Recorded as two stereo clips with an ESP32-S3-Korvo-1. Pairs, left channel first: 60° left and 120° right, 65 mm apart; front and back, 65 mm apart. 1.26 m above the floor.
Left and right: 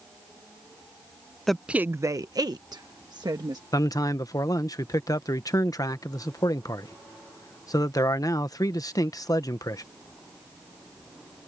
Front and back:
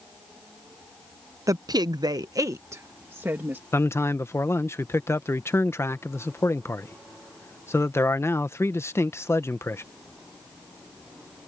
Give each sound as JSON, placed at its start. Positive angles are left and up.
{"t": 1.5, "sound": "a woman speaking", "azimuth_deg": 145}
{"t": 3.7, "sound": "a man speaking", "azimuth_deg": 45}